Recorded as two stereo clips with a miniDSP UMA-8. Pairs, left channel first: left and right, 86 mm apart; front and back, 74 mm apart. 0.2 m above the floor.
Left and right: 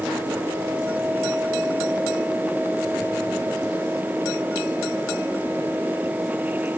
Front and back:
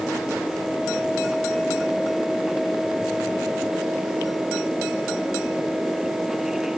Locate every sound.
Only background noise.